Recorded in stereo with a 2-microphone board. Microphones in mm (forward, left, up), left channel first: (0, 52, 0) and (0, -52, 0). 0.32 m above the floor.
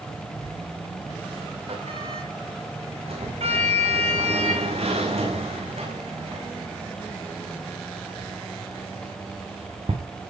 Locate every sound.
0.4 s a sliding door: 70° right (ahead or behind), 9 m